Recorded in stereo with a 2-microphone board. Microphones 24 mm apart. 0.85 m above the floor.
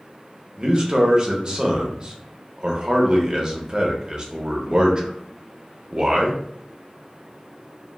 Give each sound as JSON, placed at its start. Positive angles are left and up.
{"t": 0.6, "sound": "a man speaking", "side_deg": -30, "distance_m": 0.7}